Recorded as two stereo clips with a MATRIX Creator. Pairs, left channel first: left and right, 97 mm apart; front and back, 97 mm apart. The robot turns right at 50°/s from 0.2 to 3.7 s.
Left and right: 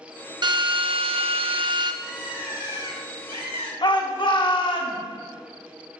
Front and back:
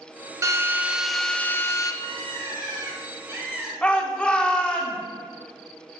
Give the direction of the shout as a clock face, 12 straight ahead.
9 o'clock.